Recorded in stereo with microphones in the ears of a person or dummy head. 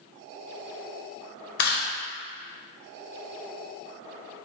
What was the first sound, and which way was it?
Chewing, 50° left (ahead or behind).